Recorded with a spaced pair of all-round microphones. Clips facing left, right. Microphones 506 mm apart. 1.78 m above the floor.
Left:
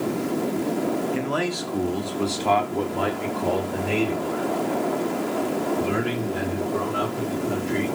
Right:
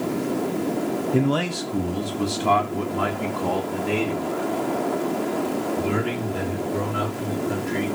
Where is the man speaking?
60° right (ahead or behind), 1.0 m; by 7.8 s 10° right (ahead or behind), 6 m.